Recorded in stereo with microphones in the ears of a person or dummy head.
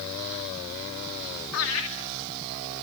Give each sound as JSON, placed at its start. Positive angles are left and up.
{"t": 1.5, "sound": "laughter", "side_deg": 85, "distance_m": 3.0}